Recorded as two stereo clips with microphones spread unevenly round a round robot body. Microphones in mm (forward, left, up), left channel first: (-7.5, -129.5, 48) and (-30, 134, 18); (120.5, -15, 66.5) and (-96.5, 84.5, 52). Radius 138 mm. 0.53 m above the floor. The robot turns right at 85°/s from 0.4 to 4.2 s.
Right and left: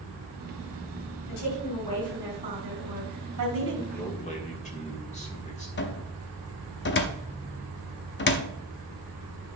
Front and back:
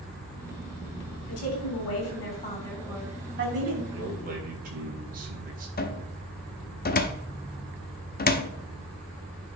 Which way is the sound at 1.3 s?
65° right.